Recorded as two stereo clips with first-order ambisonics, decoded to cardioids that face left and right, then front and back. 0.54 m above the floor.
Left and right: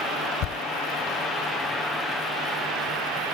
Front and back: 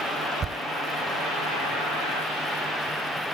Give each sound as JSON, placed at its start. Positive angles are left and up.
{"t": 0.4, "sound": "a thud", "azimuth_deg": 120}